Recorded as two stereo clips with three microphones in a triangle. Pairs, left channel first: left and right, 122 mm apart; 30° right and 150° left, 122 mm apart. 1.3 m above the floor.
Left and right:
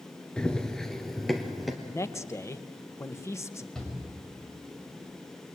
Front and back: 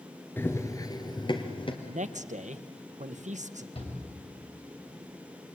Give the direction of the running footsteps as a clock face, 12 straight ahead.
11 o'clock.